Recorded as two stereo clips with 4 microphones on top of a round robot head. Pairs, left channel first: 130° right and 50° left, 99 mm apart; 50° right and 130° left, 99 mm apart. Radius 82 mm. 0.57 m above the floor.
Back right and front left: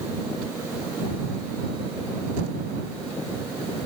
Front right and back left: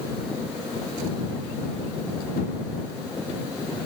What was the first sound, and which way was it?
Only background noise.